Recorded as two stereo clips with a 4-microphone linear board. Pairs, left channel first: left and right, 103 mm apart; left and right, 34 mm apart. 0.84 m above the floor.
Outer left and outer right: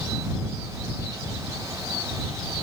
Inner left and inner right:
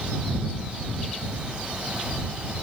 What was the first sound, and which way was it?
Only background noise.